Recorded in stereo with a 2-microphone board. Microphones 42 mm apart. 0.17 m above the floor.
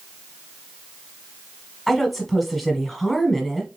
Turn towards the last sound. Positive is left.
turn(degrees=0)  # may be behind; listen again after turning